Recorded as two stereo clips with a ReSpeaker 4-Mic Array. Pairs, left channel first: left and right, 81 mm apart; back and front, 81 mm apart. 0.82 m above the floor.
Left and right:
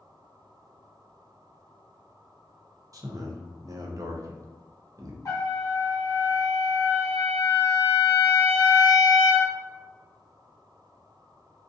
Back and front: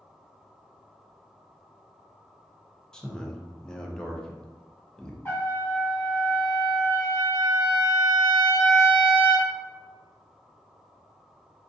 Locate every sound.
2.9 s a man speaking: 100° right, 0.5 m
5.2 s a trumpet: 120° left, 1.1 m